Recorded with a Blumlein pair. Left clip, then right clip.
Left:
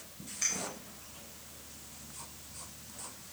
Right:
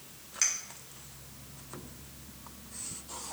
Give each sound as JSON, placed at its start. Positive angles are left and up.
{"t": 0.4, "sound": "a clink", "azimuth_deg": -50, "distance_m": 2.0}